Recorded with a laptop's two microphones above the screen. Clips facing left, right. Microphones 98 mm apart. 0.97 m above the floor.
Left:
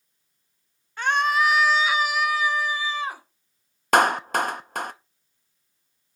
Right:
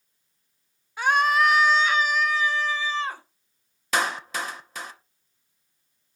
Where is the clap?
55° left (ahead or behind), 0.6 m.